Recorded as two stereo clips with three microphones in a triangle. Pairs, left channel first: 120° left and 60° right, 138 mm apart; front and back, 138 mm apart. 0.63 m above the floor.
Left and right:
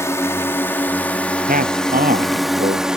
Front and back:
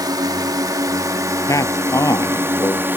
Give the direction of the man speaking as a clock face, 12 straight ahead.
2 o'clock.